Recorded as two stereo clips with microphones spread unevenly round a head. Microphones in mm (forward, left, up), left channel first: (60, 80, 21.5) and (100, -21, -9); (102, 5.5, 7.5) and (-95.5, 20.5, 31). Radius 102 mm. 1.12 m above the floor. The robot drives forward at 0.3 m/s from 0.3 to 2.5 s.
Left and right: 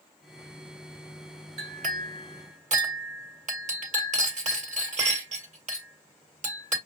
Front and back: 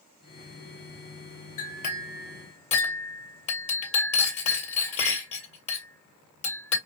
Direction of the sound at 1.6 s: 60° right.